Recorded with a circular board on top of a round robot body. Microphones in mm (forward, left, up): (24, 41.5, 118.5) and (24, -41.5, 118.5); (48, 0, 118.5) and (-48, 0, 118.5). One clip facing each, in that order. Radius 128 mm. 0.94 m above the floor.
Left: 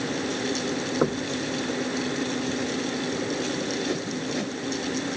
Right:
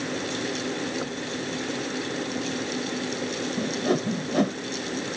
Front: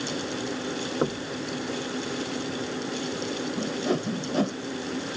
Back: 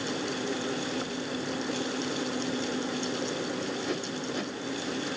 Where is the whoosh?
50° right.